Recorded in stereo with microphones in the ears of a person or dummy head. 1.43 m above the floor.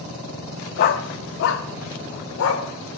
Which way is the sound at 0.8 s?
45° left (ahead or behind).